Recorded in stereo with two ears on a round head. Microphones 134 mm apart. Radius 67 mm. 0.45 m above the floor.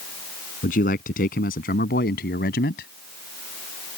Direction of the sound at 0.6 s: 60° left (ahead or behind).